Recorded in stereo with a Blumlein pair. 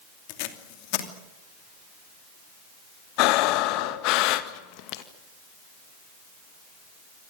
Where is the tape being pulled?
45° left, 2.5 m.